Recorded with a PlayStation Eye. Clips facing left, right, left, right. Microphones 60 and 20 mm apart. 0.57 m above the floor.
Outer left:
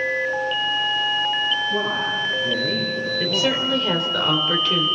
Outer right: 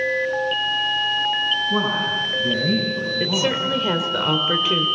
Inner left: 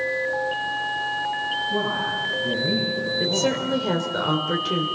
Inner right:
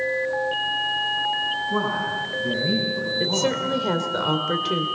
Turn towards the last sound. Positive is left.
turn(degrees=-10)  # may be behind; listen again after turning